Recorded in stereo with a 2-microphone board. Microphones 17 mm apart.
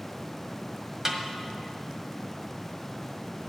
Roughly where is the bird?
I don't hear a bird.